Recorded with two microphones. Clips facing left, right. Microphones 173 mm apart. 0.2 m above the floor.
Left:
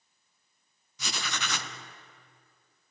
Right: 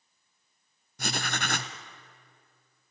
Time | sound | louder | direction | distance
1.0 | writing | right 4 dB | 50° right (ahead or behind) | 1.4 m